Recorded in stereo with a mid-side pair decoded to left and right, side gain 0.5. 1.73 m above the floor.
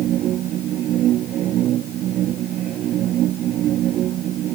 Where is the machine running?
65° right.